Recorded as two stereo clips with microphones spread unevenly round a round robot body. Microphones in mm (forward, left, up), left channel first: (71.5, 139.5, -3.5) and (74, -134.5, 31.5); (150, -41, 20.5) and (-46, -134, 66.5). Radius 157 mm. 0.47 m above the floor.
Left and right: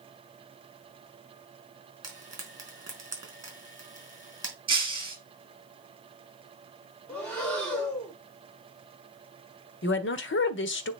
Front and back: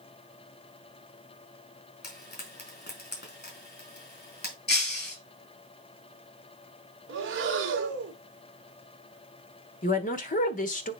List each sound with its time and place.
2.0 s frying: 10° right, 4.5 m
4.7 s breaking glass: 15° right, 3 m
7.1 s breathing: 170° left, 1.5 m
9.8 s a woman speaking: 60° left, 1.2 m